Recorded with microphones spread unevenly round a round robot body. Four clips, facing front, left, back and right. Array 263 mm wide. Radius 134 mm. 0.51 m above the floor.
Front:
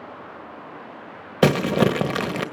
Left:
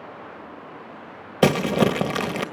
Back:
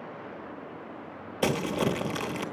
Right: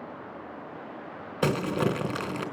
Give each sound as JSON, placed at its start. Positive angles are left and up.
{"t": 1.4, "sound": "crumpling", "azimuth_deg": 35, "distance_m": 1.6}